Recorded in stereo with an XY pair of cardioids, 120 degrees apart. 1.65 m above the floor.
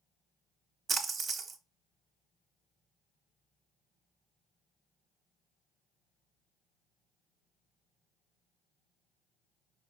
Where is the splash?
40° right, 0.7 m.